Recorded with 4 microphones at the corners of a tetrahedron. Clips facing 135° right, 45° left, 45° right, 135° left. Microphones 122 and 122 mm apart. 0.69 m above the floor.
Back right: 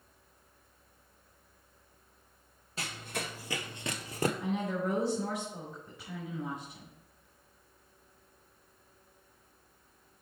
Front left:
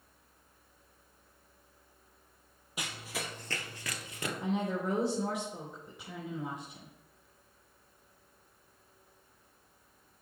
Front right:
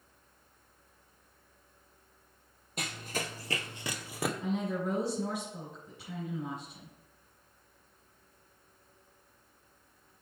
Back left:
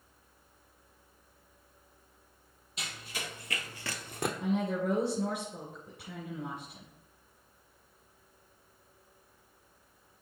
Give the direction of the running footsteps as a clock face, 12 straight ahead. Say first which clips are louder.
Back right 1 dB, front right 5 dB; 1 o'clock.